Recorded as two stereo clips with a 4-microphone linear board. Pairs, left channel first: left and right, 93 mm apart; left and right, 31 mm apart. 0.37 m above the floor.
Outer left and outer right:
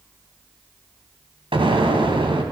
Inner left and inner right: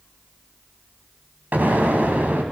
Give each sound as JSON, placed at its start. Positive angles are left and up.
{"t": 1.5, "sound": "an explosion", "side_deg": -65, "distance_m": 3.0}